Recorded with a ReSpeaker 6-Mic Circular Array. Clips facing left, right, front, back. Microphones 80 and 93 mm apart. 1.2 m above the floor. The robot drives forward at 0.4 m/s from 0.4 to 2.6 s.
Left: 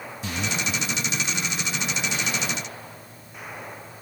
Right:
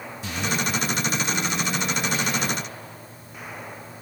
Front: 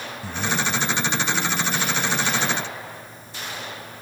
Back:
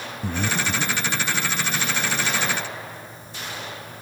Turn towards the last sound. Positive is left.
turn(degrees=175)